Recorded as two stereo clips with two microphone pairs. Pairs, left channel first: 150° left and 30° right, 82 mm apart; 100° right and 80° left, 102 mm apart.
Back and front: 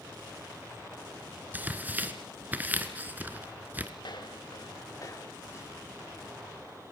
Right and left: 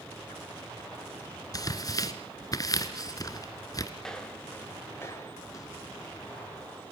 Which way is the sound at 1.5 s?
85° right.